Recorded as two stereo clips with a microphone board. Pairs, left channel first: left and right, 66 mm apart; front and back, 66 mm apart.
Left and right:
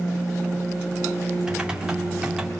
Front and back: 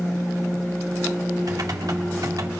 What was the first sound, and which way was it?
Typing on a keyboard, 165° right.